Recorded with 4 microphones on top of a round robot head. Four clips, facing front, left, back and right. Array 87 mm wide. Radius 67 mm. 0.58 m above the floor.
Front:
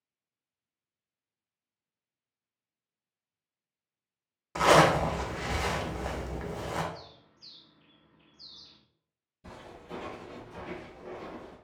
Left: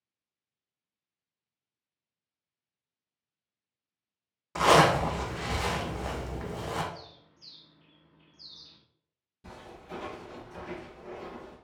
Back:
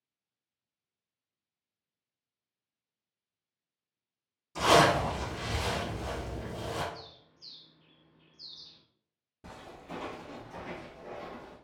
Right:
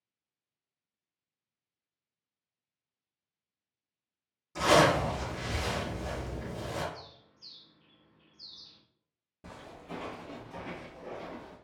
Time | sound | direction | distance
4.5 | a zipper | 40° left | 0.6 m
6.9 | a bird | 30° left | 0.8 m
9.4 | footsteps | 135° right | 1.3 m